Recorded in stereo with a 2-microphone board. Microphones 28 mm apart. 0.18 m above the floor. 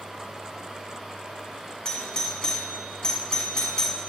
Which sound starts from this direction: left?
A doorbell, at 1.9 s.